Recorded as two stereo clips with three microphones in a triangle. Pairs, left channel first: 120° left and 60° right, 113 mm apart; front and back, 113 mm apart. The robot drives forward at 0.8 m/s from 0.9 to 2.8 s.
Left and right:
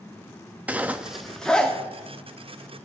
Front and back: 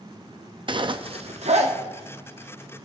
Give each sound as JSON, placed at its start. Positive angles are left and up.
{"t": 0.7, "sound": "a zipper", "azimuth_deg": -135, "distance_m": 0.6}